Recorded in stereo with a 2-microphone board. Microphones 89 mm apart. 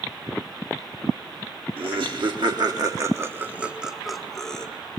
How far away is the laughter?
About 1.6 m.